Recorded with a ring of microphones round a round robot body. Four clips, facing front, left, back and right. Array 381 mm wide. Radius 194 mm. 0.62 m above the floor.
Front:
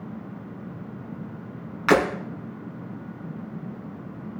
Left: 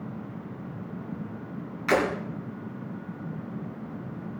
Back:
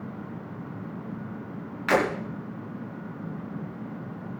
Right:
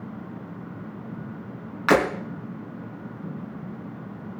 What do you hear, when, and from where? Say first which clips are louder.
1.9 s breaking glass: right 4 dB, front 4 dB; 50° right, 3.5 m